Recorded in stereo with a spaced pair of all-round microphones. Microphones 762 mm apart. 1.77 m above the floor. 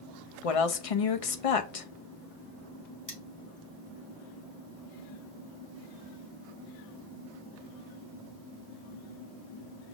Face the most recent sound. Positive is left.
turn(degrees=25)  # may be behind; listen again after turning